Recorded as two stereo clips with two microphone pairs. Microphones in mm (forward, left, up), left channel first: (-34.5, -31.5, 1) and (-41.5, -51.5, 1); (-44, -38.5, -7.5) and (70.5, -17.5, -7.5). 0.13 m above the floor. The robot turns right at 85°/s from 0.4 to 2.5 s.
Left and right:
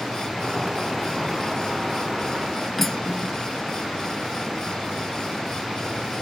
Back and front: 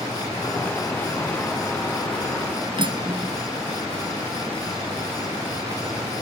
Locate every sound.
2.8 s cutlery clinking: 10° right, 0.9 m